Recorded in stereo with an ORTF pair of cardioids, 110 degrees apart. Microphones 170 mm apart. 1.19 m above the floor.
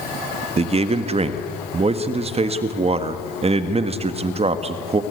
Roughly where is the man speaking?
Ahead right.